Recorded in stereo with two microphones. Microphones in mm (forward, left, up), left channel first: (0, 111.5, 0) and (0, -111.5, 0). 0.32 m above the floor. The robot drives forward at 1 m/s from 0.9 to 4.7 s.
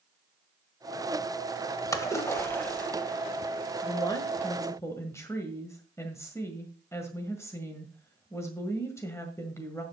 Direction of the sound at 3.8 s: 15° left (ahead or behind).